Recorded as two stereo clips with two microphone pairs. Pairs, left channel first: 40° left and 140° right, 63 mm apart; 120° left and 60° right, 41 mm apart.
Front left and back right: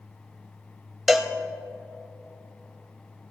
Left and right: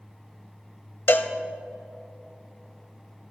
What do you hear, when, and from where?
1.1 s a cowbell: 130° left, 0.6 m